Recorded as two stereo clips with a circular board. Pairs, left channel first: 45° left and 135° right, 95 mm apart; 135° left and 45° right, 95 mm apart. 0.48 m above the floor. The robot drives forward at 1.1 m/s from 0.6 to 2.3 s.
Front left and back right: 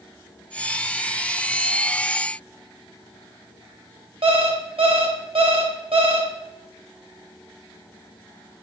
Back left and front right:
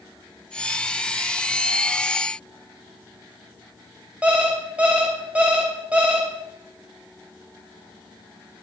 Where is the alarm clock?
120° right, 1.2 m.